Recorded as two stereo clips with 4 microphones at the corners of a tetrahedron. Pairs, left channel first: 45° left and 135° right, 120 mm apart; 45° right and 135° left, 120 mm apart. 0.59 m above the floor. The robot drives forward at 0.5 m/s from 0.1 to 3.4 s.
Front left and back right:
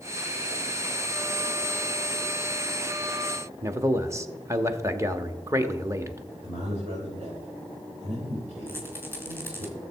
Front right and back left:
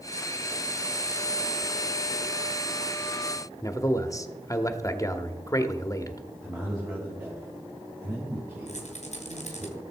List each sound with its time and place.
3.6 s a man speaking: 85° right, 0.9 m
6.4 s a man speaking: 160° right, 3.5 m
8.7 s a rattle: 65° right, 2.5 m